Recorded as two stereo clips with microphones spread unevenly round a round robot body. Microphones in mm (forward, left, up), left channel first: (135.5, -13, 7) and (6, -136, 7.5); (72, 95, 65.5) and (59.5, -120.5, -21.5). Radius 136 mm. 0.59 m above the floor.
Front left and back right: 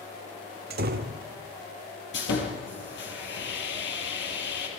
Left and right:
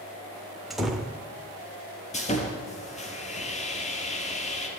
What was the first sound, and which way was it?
A door slam, 170° right.